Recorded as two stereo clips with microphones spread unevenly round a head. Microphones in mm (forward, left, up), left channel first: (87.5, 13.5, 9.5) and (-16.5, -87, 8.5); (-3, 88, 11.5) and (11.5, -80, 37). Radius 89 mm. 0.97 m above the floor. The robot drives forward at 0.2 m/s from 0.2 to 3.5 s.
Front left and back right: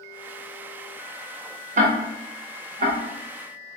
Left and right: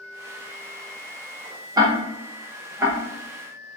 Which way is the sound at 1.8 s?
160° right.